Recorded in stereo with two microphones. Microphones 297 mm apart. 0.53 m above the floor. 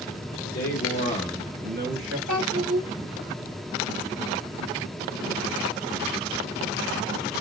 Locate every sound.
0.5 s a man speaking: 60° left (ahead or behind), 1.6 m; by 2.2 s 50° right (ahead or behind), 1.4 m
2.3 s a child speaking: 70° right (ahead or behind), 0.8 m